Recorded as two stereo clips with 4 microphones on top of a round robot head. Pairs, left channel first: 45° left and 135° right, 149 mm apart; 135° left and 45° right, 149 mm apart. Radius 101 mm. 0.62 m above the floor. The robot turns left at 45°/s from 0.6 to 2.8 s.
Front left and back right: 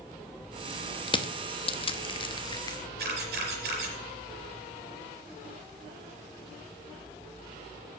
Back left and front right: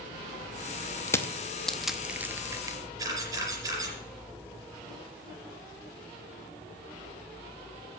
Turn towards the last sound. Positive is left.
turn(degrees=-115)